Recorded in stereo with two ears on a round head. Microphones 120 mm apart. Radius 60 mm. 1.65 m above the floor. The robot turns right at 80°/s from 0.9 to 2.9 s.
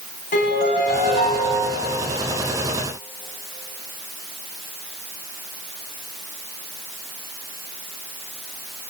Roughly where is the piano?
Behind left.